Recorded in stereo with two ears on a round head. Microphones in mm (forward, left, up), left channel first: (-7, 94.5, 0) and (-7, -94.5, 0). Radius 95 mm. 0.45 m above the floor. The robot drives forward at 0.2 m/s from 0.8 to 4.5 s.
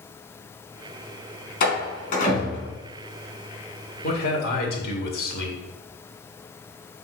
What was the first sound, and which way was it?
A door slam, 45° left (ahead or behind).